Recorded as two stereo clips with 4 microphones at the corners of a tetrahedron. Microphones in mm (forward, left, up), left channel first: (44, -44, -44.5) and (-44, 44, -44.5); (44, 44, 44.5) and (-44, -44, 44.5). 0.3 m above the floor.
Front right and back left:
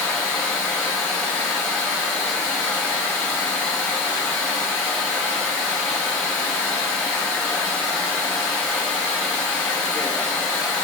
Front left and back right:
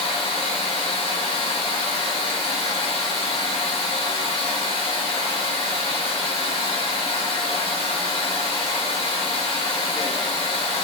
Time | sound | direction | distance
0.0 | running water | 35° left | 1.4 m